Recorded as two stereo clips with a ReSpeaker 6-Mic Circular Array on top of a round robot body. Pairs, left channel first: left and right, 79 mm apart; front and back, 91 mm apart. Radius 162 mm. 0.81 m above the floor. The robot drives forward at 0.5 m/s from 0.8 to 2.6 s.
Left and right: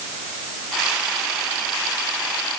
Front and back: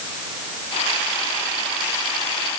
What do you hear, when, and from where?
Only background noise.